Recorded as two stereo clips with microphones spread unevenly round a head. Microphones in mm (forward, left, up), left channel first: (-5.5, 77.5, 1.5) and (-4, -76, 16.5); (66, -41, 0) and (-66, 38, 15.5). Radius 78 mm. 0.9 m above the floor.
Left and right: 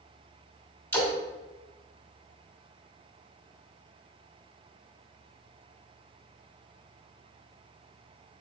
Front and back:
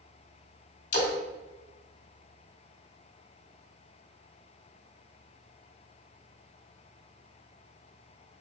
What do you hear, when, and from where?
0.9 s a splash: 15° left, 1.8 m